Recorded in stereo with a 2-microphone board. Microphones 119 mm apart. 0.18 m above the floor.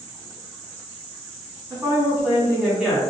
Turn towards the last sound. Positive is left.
turn(degrees=0)  # may be behind; listen again after turning